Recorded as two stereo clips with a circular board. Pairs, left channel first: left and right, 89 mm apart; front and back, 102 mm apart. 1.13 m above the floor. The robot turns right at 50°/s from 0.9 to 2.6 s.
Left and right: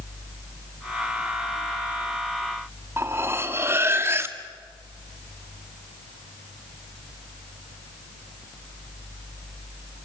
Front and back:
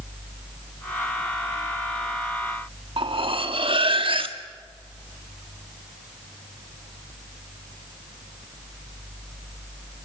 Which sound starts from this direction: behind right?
Cutlery clinking, at 3.0 s.